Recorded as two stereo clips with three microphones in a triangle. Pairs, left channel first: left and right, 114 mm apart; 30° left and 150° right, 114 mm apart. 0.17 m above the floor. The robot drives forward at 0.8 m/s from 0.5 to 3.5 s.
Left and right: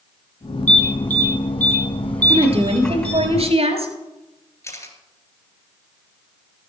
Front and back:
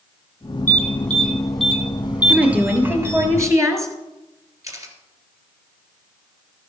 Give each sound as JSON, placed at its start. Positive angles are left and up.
{"t": 0.7, "sound": "an alarm", "azimuth_deg": 45, "distance_m": 2.0}
{"t": 2.3, "sound": "a woman speaking", "azimuth_deg": -70, "distance_m": 3.0}
{"t": 4.6, "sound": "a camera shutter", "azimuth_deg": 150, "distance_m": 2.5}